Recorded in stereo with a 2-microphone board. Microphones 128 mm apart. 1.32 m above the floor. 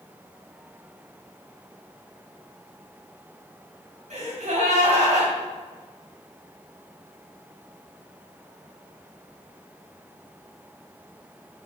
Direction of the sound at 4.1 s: 65° right (ahead or behind).